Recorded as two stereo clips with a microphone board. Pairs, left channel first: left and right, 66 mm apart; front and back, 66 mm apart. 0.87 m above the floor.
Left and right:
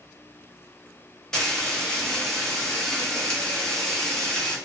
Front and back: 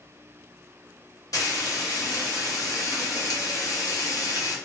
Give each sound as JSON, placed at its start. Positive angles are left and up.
{"t": 1.3, "sound": "frying", "azimuth_deg": 10, "distance_m": 0.7}